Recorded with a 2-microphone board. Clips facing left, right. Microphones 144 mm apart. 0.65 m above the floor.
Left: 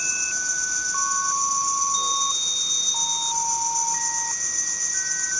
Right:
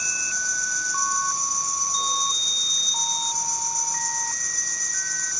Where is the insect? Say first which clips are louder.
Right 1 dB; 10° left (ahead or behind), 0.9 m.